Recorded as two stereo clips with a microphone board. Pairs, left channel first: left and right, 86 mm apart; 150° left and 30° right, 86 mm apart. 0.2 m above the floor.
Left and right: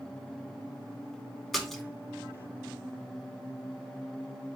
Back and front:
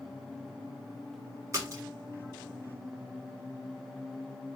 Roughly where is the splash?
Ahead.